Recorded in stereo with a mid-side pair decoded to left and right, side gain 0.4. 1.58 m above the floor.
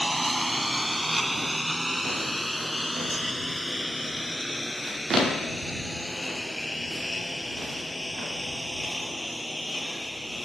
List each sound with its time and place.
0.0 s a lawn mower: 15° right; by 10.5 s 15° left